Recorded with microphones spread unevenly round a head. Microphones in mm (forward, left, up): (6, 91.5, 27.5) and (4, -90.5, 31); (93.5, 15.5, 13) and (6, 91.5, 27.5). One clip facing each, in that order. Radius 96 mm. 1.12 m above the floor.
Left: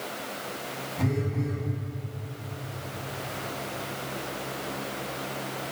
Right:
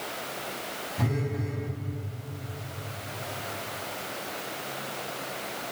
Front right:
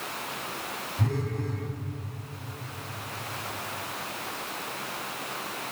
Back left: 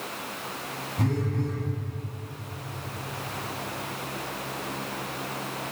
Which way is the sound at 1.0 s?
175° right.